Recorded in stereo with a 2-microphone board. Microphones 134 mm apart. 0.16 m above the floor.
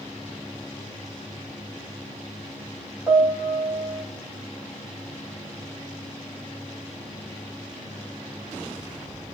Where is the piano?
10° right (ahead or behind), 5 m.